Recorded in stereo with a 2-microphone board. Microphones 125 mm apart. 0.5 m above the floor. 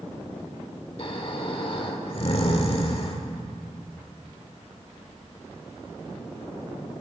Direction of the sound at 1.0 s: 50° left (ahead or behind).